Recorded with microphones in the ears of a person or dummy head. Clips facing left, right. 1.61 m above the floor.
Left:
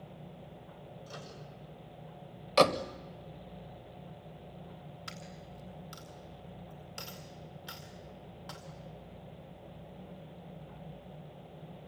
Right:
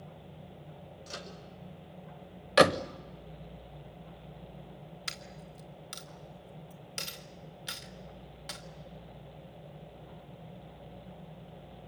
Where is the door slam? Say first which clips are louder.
Right 2 dB; 25° right (ahead or behind), 0.7 m.